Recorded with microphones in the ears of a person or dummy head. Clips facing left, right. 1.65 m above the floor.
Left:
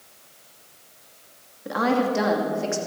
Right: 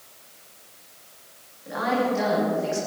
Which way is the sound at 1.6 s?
55° left (ahead or behind).